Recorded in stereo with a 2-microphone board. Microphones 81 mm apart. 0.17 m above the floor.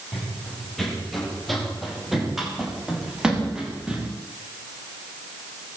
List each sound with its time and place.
0.1 s running footsteps: 5° left (ahead or behind), 8.5 m; by 4.1 s 10° right (ahead or behind), 9.5 m